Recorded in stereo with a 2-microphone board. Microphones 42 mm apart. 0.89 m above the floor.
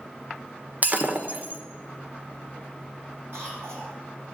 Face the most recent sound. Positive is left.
turn(degrees=-75)  # may be behind; listen again after turning